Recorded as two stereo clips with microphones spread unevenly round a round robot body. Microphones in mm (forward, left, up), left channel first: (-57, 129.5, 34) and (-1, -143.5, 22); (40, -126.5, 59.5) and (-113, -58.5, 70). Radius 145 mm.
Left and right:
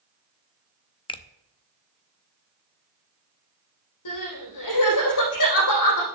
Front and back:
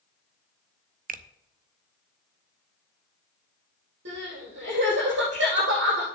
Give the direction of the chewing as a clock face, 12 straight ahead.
I don't hear chewing.